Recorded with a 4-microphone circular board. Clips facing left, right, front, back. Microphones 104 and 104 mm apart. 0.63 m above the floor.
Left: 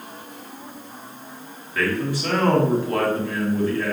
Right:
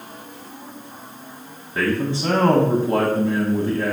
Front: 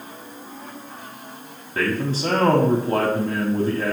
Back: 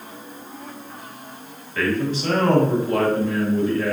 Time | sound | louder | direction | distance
1.8 | a man speaking | right 2 dB, back 1 dB | 35° right | 1.0 m